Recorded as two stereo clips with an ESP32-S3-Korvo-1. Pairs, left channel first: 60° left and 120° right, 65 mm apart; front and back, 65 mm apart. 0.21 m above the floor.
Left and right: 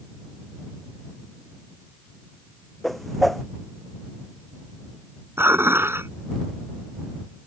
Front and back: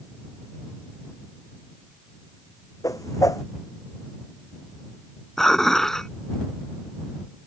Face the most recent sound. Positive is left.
turn(degrees=-80)